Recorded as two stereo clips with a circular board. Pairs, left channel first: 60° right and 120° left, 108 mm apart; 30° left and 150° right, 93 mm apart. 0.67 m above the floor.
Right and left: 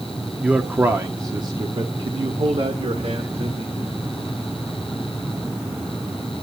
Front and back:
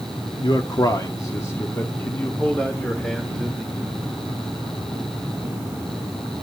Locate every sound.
0.4 s a man speaking: 45° left, 1.3 m; by 3.8 s 120° left, 2.5 m